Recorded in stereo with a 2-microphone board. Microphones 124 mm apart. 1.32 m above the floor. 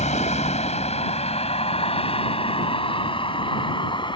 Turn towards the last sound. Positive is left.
turn(degrees=40)  # may be behind; listen again after turning